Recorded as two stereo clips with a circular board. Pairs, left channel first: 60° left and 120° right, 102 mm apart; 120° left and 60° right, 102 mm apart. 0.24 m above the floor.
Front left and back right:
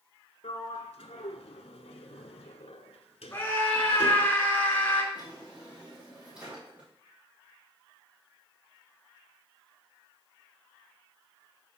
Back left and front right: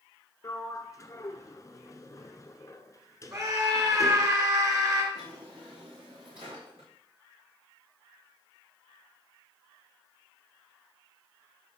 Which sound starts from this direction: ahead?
A scream, at 3.3 s.